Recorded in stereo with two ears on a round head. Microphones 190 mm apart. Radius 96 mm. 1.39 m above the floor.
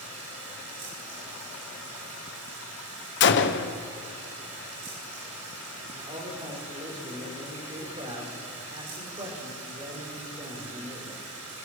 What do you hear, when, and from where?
0.0 s running water: 85° right, 6.5 m
3.2 s a gunshot: 60° left (ahead or behind), 1.2 m
5.9 s a man speaking: 25° right (ahead or behind), 5 m